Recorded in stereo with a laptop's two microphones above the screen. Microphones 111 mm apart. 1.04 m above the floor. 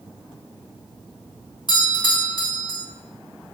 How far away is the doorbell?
About 2 m.